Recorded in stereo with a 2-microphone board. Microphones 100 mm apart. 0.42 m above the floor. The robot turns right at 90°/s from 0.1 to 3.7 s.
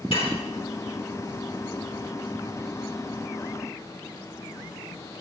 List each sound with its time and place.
0.1 s dishes clattering: 80° left, 4.5 m; by 0.4 s 60° left (ahead or behind), 4.5 m